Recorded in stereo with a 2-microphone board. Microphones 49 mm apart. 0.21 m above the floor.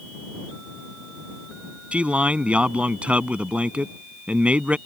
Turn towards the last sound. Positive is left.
turn(degrees=-25)  # may be behind; listen again after turning